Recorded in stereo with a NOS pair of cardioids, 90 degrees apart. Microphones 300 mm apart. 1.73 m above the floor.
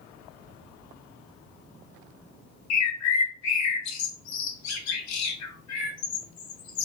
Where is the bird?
65° left, 0.6 m.